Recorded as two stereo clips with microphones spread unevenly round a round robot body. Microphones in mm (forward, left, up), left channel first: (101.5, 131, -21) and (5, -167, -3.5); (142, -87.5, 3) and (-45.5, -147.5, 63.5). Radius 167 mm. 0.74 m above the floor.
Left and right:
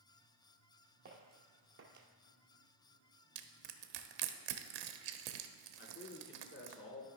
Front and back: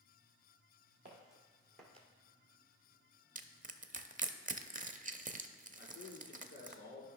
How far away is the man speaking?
About 2.5 m.